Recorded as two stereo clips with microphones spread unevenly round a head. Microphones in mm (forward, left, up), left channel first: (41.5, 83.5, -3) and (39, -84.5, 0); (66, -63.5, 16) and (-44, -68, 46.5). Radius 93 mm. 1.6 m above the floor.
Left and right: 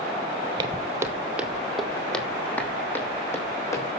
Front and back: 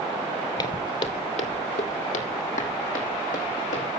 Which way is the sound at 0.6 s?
45° right.